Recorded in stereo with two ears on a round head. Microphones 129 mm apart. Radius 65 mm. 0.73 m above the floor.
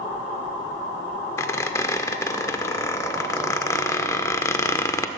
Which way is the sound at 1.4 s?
20° left (ahead or behind).